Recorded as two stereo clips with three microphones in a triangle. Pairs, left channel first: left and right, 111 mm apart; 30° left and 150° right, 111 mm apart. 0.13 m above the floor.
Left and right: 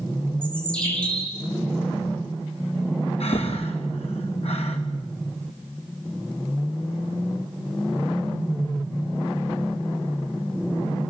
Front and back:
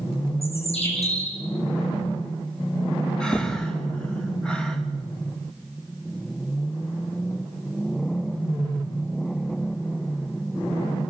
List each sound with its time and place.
0.4 s a bird: 10° left, 5.5 m
3.2 s breathing: 115° left, 3 m